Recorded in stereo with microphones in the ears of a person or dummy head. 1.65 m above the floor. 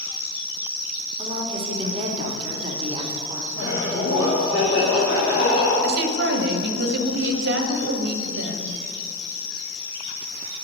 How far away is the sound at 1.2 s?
About 1.2 m.